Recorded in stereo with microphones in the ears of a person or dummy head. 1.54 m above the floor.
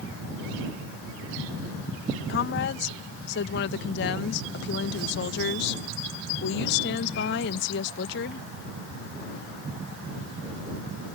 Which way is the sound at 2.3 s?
70° left (ahead or behind).